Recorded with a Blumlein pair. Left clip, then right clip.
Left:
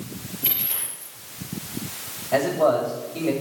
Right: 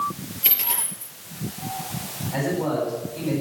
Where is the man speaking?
55° left, 6.5 m.